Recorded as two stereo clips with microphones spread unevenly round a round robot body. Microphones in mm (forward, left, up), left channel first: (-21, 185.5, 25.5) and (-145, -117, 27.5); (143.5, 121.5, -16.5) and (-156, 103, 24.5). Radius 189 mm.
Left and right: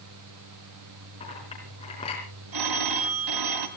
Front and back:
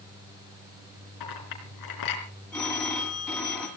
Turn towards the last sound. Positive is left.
turn(degrees=-85)